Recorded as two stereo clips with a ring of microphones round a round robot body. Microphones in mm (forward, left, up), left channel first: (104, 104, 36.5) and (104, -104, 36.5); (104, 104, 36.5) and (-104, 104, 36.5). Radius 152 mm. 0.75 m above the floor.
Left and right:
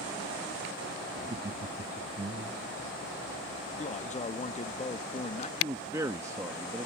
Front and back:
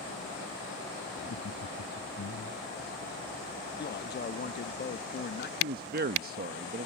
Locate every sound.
1.2 s laughter: 30° right
3.8 s a man speaking: 35° left
5.6 s a man speaking: 160° right